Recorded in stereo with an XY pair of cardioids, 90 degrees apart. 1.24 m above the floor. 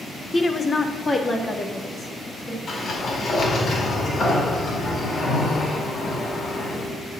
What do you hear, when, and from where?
0.3 s a woman speaking: 30° left, 1.1 m; by 2.6 s 25° left, 2.5 m
2.7 s a sliding door: 55° left, 4.5 m